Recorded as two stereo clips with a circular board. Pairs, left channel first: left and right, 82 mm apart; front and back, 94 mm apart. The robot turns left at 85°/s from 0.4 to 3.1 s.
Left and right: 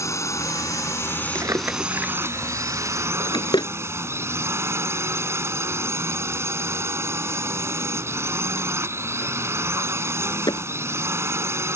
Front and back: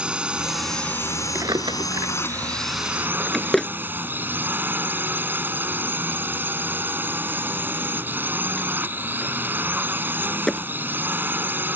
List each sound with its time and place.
0.0 s a drone: 105° left; by 11.8 s 125° right
1.4 s a drawer: 125° right; by 10.6 s 85° left